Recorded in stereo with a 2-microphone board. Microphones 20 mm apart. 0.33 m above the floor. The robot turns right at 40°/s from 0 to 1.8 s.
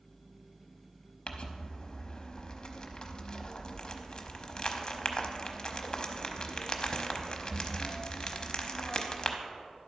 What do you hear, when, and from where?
1.3 s crumpling: 55° left (ahead or behind), 0.7 m; by 9.4 s 35° left (ahead or behind), 0.7 m